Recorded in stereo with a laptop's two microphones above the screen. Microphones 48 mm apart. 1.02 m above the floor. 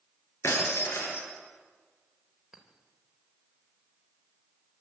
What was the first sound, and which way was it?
Breaking glass, 65° left (ahead or behind).